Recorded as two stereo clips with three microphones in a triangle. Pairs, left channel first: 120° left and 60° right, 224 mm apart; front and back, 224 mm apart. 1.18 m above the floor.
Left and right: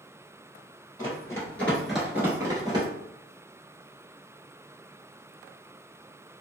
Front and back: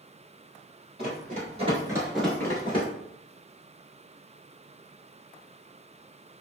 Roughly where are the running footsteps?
Behind.